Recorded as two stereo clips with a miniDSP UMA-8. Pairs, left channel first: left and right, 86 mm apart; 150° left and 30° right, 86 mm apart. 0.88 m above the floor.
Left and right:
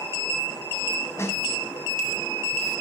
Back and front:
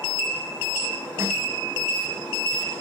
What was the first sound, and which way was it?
A snare drum, 30° left.